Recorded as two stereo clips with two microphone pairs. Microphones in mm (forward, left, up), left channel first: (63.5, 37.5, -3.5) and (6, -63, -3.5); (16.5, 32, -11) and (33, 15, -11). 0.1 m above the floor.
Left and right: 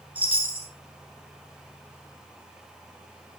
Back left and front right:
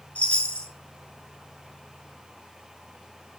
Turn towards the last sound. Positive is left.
turn(degrees=165)